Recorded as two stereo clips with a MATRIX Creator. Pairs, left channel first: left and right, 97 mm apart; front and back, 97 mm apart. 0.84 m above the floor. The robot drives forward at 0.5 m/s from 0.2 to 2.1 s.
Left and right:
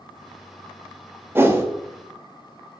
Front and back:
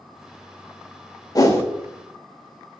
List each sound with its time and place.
1.4 s a whoosh: 30° right, 0.6 m; by 1.6 s 45° right, 0.6 m